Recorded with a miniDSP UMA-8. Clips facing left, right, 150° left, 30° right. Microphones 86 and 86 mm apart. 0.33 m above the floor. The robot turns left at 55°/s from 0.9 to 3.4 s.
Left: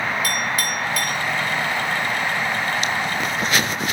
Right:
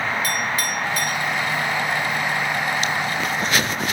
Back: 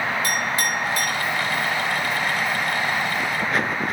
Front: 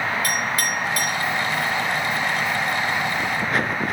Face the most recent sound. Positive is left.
turn(degrees=75)